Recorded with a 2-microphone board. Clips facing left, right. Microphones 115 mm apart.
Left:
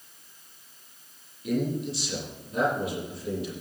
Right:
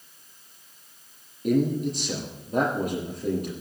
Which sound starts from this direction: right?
A man speaking, at 1.4 s.